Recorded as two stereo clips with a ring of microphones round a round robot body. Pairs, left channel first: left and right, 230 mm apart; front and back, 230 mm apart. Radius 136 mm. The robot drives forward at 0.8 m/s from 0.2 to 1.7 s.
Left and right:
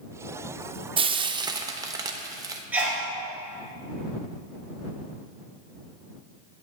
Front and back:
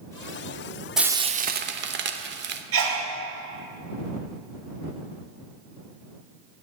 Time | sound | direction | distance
1.0 | frying | 95° right | 0.6 m
2.7 | a sneeze | 175° right | 2.5 m